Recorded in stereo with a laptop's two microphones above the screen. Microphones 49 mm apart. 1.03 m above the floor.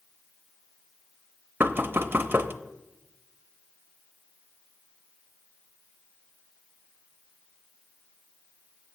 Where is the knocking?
45° right (ahead or behind), 0.7 m.